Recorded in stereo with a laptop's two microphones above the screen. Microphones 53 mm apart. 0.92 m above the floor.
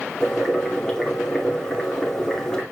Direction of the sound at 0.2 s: 15° left (ahead or behind).